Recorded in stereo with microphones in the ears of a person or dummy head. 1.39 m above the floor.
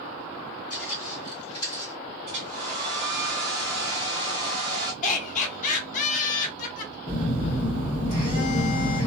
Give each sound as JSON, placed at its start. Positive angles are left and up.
{"t": 0.7, "sound": "footsteps", "side_deg": 40, "distance_m": 1.8}
{"t": 2.3, "sound": "a hair dryer", "side_deg": -25, "distance_m": 0.9}
{"t": 5.0, "sound": "laughter", "side_deg": 50, "distance_m": 0.9}
{"t": 7.1, "sound": "a phone buzzing", "side_deg": 25, "distance_m": 0.9}